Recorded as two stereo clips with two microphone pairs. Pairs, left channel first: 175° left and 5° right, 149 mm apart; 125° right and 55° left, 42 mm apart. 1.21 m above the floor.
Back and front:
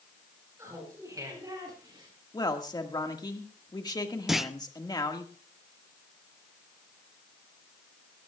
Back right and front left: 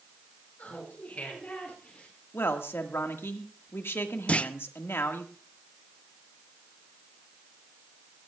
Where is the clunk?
90° right, 0.5 m.